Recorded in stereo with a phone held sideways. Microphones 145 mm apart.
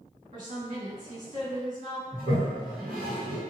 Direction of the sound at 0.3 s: 65° right (ahead or behind).